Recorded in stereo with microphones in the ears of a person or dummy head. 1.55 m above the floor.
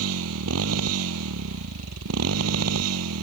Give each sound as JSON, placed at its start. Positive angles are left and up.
{"t": 0.0, "sound": "a motorcycle", "side_deg": -75}